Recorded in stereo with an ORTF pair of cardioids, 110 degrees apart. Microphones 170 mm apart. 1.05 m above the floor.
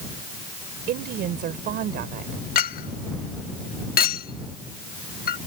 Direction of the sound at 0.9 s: 65° right.